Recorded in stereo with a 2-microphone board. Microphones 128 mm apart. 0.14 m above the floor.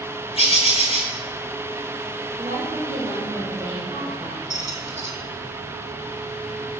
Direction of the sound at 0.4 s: 50° left (ahead or behind).